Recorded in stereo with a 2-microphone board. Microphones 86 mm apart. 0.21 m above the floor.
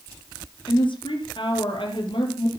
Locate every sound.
0.7 s a woman speaking: 70° left (ahead or behind), 5.5 m